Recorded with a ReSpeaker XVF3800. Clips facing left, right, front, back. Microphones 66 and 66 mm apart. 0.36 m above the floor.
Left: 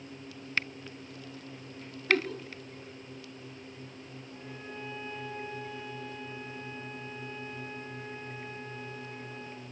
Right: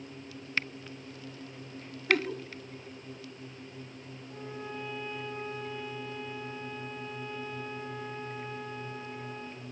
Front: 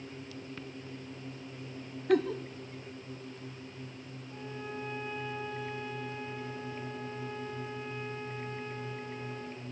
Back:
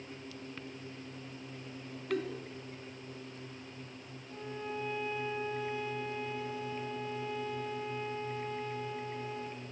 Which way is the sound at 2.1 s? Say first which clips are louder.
Even, front 8 dB; 10° right.